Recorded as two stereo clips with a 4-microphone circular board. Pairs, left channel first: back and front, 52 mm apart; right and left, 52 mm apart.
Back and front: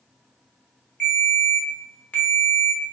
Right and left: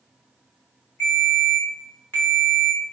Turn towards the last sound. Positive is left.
turn(degrees=-125)